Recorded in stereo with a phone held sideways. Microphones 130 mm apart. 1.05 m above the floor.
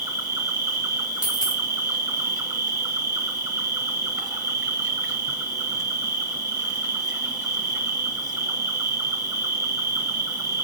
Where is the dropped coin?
35° left (ahead or behind), 1.5 m.